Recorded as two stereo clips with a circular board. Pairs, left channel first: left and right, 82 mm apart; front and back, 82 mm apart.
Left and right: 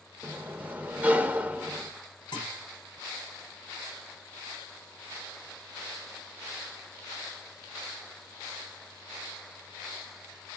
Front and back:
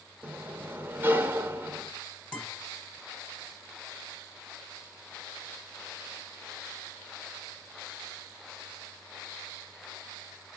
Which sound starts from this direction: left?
A guitar, at 2.3 s.